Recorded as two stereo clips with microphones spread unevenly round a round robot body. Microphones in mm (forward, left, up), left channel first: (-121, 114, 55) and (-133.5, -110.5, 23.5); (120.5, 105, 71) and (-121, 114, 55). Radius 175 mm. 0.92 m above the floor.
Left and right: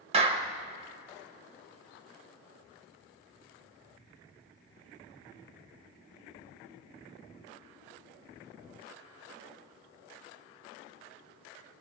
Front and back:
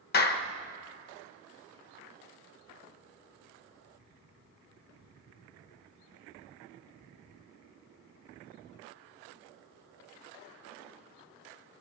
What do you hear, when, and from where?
0.1 s a clap: 45° right, 0.8 m